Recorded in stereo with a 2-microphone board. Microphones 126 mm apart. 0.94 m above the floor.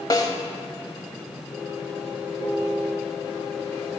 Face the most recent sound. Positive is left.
turn(degrees=35)  # may be behind; listen again after turning